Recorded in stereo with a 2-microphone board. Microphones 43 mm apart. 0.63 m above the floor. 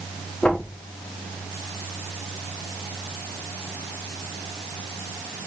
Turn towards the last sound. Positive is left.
turn(degrees=20)  # may be behind; listen again after turning